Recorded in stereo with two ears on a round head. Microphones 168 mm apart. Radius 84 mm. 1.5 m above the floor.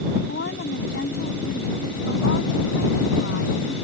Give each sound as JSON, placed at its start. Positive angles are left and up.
{"t": 0.3, "sound": "a woman speaking", "side_deg": 60}